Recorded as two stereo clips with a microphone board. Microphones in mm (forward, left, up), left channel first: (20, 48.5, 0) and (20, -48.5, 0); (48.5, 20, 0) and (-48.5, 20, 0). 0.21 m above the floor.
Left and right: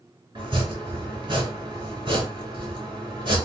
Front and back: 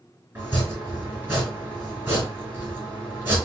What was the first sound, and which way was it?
Chopping, 120° right.